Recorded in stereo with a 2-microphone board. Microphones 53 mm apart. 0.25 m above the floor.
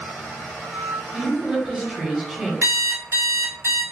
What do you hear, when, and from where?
1.1 s a woman speaking: 10° right (ahead or behind), 0.9 m
2.6 s an alarm clock: 70° right (ahead or behind), 1.5 m